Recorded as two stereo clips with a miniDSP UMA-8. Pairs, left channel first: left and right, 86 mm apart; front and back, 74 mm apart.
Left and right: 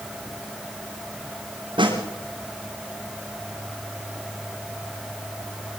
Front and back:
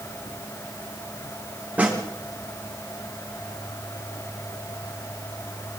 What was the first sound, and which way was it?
A snare drum, 110° right.